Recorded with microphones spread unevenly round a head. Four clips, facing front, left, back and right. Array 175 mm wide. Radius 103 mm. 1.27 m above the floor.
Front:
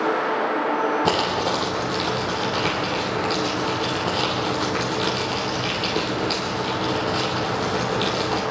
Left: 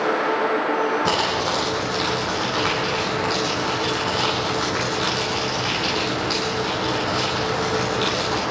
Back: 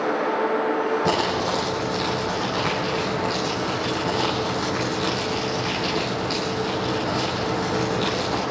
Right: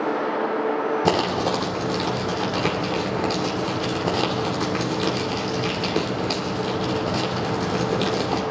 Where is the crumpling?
95° right, 2.5 m.